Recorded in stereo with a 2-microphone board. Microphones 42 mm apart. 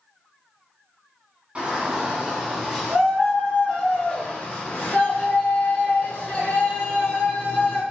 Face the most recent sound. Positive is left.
turn(degrees=65)  # may be behind; listen again after turning